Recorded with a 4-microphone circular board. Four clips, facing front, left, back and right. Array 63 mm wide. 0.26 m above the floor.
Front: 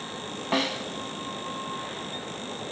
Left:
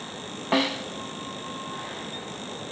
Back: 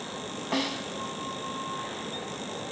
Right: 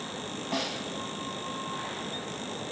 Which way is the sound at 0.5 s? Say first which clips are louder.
Left 9 dB, front 3 dB; 75° left.